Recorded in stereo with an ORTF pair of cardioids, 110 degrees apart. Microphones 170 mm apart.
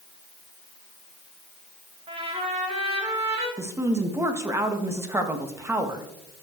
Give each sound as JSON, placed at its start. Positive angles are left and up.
{"t": 2.1, "sound": "a trumpet", "azimuth_deg": -35, "distance_m": 3.0}
{"t": 3.6, "sound": "a woman speaking", "azimuth_deg": -15, "distance_m": 1.6}